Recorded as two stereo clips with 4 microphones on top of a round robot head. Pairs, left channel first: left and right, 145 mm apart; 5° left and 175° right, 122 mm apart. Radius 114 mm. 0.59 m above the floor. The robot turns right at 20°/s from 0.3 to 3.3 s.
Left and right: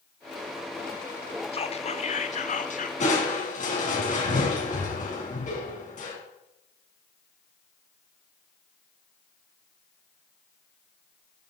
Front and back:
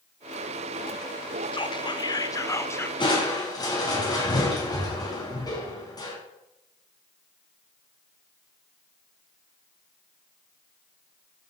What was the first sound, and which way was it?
Whispering, 45° left.